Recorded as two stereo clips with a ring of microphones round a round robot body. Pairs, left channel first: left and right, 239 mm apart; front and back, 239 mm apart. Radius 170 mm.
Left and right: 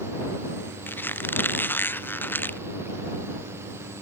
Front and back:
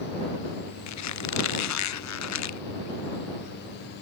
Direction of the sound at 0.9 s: 10° left.